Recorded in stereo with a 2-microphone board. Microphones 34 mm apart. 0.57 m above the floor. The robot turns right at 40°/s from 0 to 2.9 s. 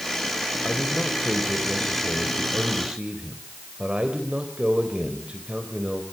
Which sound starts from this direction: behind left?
A man speaking, at 0.6 s.